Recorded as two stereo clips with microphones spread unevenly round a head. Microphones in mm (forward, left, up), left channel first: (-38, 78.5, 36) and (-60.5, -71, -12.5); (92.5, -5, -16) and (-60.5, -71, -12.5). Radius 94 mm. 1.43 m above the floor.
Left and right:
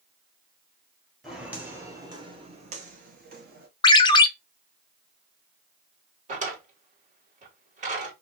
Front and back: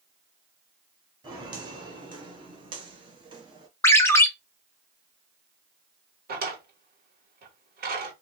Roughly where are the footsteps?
Behind left.